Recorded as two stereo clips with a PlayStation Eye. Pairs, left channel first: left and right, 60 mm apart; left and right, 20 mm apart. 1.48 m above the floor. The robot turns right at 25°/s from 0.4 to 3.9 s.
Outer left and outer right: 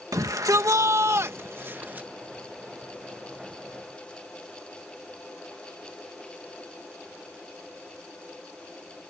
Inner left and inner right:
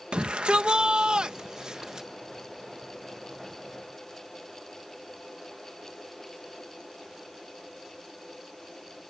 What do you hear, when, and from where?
0.1 s a shout: 70° right; by 2.1 s 30° right